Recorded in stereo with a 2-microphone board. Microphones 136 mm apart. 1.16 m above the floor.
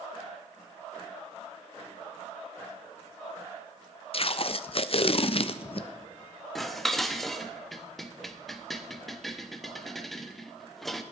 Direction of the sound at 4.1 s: 50° left (ahead or behind).